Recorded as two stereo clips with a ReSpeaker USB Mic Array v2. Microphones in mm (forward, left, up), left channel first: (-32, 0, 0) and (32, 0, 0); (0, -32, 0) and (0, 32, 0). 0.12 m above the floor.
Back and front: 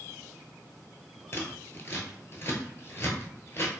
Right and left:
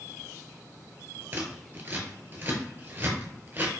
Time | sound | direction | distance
1.3 | scissors | 135° left | 0.9 m